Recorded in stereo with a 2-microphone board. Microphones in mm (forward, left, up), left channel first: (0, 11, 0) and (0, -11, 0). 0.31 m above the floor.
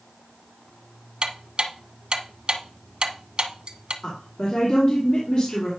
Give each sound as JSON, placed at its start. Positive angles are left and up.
{"t": 1.2, "sound": "ticking", "side_deg": -50, "distance_m": 0.8}
{"t": 4.0, "sound": "a woman speaking", "side_deg": 50, "distance_m": 3.0}